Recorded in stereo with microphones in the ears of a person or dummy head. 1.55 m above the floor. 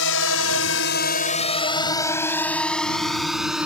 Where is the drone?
80° left; by 3.7 s 5° right (ahead or behind).